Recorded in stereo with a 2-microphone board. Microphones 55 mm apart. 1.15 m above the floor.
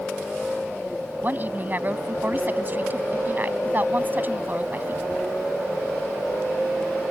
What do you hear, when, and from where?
1.2 s a woman speaking: 35° right (ahead or behind)